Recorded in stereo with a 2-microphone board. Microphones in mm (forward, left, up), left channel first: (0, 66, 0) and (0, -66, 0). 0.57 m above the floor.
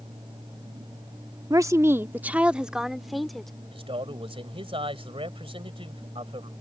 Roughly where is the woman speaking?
Right.